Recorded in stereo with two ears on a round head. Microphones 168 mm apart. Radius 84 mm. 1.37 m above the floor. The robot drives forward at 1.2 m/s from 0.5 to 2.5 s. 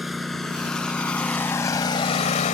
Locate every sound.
0.0 s a lawn mower: centre (ahead or behind); by 2.5 s 40° left (ahead or behind)